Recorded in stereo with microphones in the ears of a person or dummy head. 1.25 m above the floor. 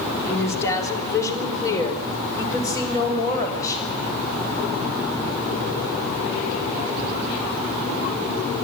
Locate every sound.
0.3 s a woman speaking: 15° left (ahead or behind), 3 m; by 3.9 s 20° left (ahead or behind), 7 m